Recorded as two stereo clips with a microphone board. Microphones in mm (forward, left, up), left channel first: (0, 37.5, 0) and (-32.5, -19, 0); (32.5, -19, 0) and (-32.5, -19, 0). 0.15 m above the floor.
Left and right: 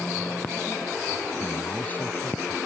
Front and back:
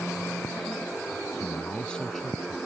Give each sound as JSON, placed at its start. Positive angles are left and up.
{"t": 1.4, "sound": "a man speaking", "azimuth_deg": 10}